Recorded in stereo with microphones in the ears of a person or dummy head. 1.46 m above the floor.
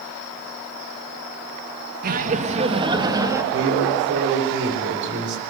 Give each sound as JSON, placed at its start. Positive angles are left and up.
{"t": 2.0, "sound": "laughter", "side_deg": -50, "distance_m": 1.6}
{"t": 3.5, "sound": "a man speaking", "side_deg": -65, "distance_m": 5.0}